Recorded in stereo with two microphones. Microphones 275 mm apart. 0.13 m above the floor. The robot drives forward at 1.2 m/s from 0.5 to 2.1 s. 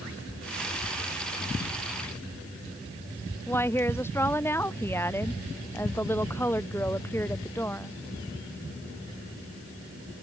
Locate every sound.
3.5 s a woman speaking: 10° left (ahead or behind)